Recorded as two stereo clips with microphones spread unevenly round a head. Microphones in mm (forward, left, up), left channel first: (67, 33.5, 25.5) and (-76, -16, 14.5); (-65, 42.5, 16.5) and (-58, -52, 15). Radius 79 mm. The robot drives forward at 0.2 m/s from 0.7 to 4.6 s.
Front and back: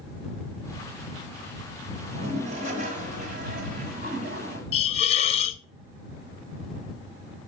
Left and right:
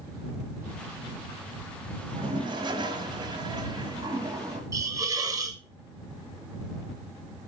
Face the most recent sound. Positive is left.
turn(degrees=-25)